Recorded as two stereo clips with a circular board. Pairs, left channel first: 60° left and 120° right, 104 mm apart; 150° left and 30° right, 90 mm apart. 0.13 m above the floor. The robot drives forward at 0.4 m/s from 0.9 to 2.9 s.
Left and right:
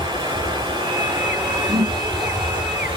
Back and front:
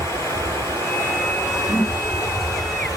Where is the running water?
160° right, 2.5 m; by 3.0 s 165° right, 3.5 m.